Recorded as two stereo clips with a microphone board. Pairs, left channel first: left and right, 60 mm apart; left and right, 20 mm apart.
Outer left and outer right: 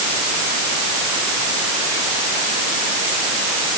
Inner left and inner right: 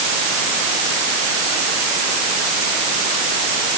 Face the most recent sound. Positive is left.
No sound to turn to.